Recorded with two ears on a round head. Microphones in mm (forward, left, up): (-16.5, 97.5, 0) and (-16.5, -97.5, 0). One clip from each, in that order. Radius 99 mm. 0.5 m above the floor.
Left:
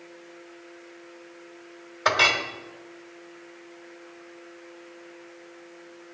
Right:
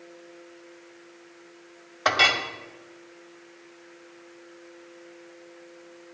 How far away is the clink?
About 1.5 m.